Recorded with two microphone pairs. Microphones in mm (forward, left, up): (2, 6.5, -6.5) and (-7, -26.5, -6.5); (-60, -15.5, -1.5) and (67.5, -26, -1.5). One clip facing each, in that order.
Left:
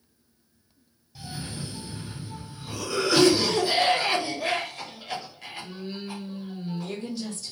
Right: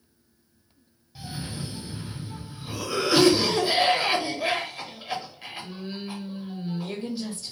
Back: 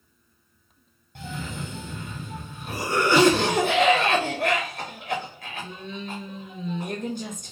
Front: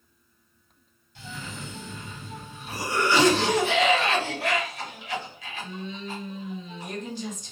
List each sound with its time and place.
1.1 s a cough: 175° right, 0.5 m